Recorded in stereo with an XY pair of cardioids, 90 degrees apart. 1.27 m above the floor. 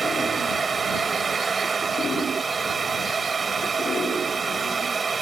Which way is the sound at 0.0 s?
40° right.